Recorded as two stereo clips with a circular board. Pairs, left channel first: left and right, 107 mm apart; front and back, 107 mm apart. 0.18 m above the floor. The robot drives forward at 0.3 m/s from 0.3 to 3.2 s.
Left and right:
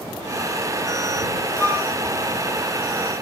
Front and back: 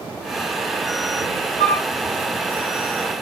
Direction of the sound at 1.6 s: 145° right.